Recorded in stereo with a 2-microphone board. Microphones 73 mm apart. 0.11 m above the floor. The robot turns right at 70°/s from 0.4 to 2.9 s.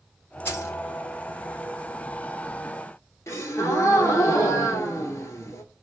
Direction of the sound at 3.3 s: 40° left (ahead or behind).